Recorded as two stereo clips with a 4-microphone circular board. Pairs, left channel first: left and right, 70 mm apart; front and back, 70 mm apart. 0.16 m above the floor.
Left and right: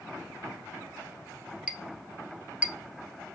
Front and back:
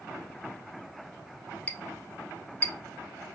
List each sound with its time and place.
1.7 s a clink: 40° right, 0.7 m